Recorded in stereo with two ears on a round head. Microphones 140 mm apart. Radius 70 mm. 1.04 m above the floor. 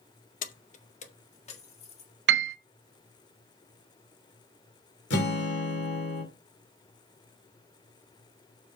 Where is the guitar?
85° left, 2.5 m.